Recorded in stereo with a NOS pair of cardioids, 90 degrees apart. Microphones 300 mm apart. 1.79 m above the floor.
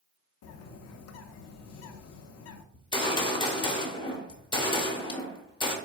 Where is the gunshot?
15° left, 0.9 m.